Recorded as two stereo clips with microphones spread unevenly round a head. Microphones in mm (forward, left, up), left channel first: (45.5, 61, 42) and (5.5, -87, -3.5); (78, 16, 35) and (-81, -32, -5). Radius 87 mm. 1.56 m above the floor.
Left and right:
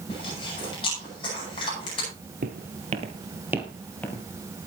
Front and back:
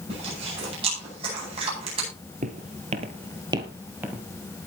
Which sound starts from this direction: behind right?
Footsteps, at 2.4 s.